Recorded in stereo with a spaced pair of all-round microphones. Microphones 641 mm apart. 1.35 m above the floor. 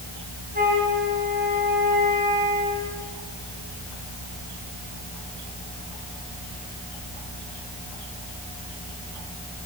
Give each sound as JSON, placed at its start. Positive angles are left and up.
{"t": 0.5, "sound": "a flute", "side_deg": -15, "distance_m": 6.5}